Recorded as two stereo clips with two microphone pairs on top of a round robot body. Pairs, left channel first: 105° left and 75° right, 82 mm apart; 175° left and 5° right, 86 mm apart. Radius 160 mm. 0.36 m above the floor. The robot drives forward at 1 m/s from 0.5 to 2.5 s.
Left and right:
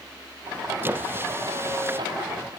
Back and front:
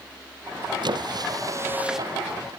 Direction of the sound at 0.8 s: 15° right.